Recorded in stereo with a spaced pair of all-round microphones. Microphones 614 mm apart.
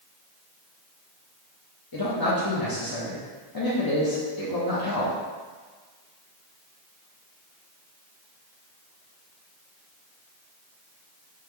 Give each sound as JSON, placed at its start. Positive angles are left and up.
{"t": 1.9, "sound": "a man speaking", "side_deg": 35, "distance_m": 0.8}